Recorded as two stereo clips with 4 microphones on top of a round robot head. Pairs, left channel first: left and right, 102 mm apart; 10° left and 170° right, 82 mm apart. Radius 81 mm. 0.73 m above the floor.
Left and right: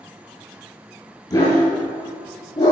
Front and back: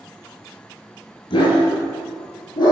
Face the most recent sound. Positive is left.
turn(degrees=45)